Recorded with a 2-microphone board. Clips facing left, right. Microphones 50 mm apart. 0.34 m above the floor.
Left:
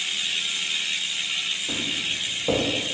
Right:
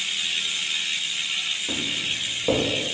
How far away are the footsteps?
About 1.4 m.